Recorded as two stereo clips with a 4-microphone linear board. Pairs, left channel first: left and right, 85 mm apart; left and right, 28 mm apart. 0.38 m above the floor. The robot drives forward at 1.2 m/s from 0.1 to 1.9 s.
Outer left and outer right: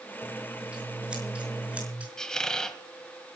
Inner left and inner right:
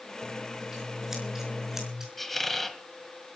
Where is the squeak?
10° left (ahead or behind), 1.5 m.